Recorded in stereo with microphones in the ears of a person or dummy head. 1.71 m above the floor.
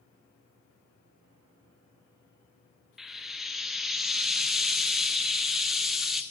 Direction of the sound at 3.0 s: Centre (ahead or behind).